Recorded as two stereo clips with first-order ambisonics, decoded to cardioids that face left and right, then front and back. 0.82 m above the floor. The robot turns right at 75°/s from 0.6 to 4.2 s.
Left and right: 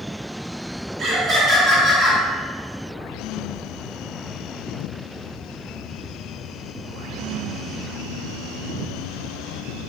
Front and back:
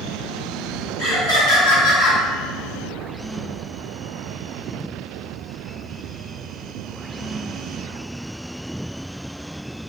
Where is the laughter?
45° right, 2.0 m; by 2.2 s 45° left, 2.0 m.